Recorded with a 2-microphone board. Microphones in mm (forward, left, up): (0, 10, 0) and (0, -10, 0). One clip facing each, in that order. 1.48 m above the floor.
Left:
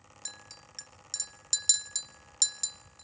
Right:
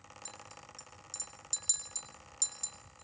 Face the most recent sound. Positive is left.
turn(degrees=45)  # may be behind; listen again after turning